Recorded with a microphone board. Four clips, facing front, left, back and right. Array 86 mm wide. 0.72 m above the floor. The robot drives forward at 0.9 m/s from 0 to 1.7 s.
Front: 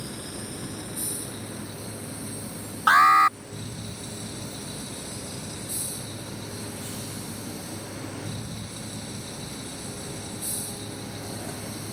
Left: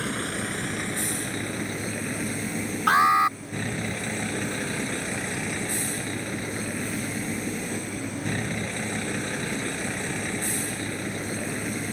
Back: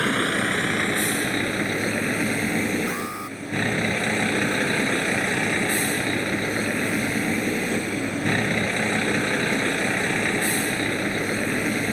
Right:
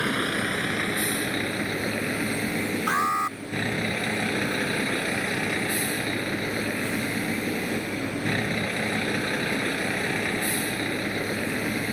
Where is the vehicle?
165° right.